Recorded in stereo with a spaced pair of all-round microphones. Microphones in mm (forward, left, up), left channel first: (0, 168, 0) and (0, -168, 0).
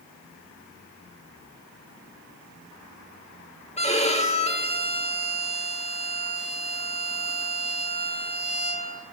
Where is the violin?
20° left (ahead or behind), 1.3 m.